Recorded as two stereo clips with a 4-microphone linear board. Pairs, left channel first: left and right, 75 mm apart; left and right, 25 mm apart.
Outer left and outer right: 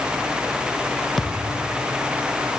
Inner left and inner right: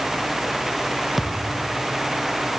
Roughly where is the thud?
Centre.